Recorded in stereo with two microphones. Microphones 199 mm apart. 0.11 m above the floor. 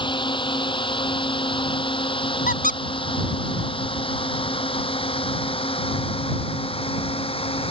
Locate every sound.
0.0 s a drone: 25° left (ahead or behind); by 7.7 s 30° left (ahead or behind)
2.5 s a squeak: 45° left (ahead or behind)